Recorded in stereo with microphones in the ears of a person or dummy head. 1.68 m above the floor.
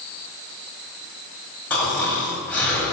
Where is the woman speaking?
I don't hear a woman speaking.